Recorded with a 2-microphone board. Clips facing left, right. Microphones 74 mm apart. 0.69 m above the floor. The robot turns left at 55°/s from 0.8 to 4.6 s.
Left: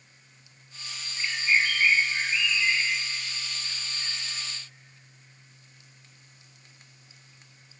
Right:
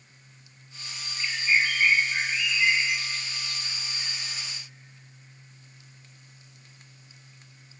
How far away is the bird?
About 3 m.